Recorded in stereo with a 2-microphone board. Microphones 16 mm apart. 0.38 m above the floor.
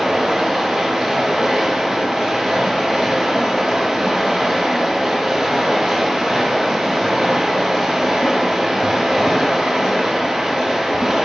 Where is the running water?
70° right (ahead or behind), 2 m.